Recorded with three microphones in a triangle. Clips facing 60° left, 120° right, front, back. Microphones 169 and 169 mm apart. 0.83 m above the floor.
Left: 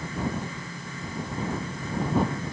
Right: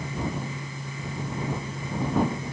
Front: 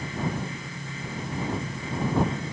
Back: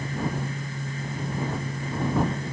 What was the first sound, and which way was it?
Only background noise.